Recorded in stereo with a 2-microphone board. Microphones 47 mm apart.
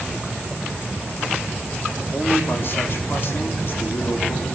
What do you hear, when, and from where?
2.1 s a man speaking: 50° left (ahead or behind), 4.5 m